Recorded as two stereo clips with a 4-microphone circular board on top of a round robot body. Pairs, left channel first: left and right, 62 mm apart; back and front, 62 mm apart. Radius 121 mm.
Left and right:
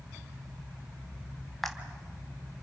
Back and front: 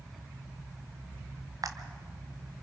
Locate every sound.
1.6 s a camera shutter: straight ahead, 1.9 m